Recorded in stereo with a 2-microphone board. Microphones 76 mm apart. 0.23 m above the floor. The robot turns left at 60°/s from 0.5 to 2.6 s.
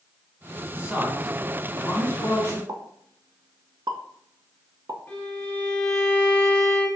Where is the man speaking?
25° right (ahead or behind), 1.4 m; by 2.6 s 40° left (ahead or behind), 1.4 m.